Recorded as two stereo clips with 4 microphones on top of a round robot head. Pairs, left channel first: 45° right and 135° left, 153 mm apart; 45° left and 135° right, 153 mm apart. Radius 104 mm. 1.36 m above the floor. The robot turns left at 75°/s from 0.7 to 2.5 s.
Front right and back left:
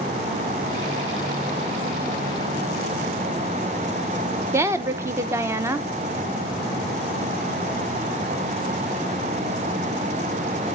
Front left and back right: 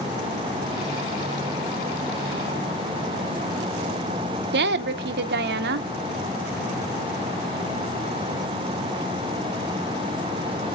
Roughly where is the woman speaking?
Behind right.